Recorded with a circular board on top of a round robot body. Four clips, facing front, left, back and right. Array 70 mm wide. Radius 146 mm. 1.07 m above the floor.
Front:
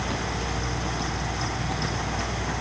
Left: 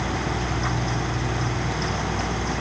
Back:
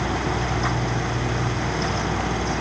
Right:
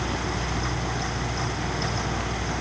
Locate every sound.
Only background noise.